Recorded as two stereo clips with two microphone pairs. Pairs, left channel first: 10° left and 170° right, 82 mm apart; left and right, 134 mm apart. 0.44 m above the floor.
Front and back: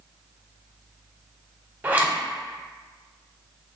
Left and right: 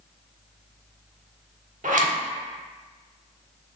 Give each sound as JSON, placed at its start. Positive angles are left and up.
{"t": 1.8, "sound": "a zipper", "azimuth_deg": -100, "distance_m": 0.5}